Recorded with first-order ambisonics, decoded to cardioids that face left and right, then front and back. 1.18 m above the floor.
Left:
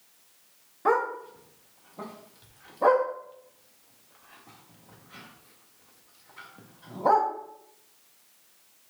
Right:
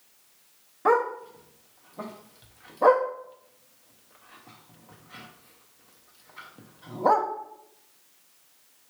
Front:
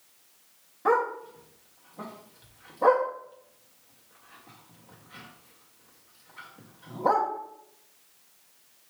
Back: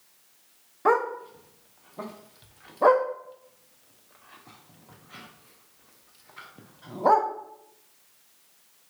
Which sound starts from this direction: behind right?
A dog barking, at 0.8 s.